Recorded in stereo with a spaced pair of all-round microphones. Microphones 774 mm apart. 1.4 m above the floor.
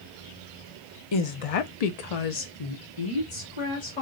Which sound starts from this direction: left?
A woman speaking, at 1.1 s.